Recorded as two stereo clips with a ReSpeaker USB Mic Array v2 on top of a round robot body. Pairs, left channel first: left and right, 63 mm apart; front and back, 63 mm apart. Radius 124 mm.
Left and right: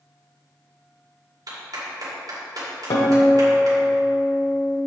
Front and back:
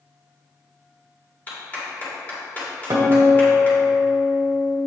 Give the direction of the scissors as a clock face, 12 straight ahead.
No scissors in this recording.